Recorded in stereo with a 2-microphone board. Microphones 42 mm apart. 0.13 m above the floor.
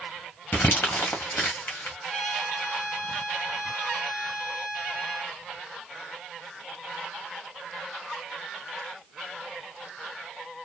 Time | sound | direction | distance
0.5 | crumpling | 50° left (ahead or behind) | 2.0 m
2.1 | a trumpet | 25° left (ahead or behind) | 1.5 m